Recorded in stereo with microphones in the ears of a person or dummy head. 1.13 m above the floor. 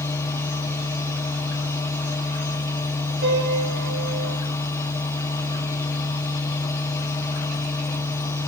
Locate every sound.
0.0 s a machine running: 15° left (ahead or behind), 1.1 m
3.2 s a piano: 60° right (ahead or behind), 8 m